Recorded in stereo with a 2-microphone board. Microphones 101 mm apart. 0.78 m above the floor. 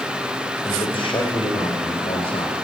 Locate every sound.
0.7 s a man speaking: 60° left (ahead or behind), 4 m; by 2.5 s 75° left (ahead or behind), 4 m